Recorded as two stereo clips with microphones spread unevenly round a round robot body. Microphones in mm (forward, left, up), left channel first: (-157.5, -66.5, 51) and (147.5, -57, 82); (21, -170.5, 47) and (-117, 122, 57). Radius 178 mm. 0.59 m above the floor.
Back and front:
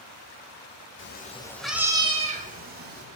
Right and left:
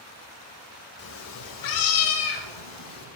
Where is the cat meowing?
125° right, 0.8 m; by 3.0 s 55° right, 1.7 m.